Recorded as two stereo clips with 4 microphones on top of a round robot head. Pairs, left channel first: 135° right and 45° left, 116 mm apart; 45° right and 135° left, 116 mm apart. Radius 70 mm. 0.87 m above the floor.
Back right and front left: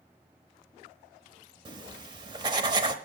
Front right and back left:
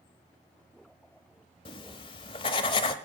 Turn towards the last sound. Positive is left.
turn(degrees=-5)